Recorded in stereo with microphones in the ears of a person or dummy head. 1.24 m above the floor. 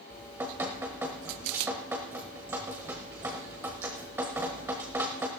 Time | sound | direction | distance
0.1 | dripping | 10° right (ahead or behind) | 1.1 m